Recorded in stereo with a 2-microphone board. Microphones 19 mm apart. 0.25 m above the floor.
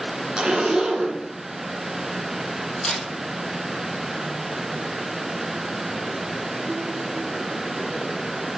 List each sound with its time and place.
0.4 s a zipper: 70° right (ahead or behind), 1.5 m
2.8 s a camera shutter: 50° left (ahead or behind), 3.5 m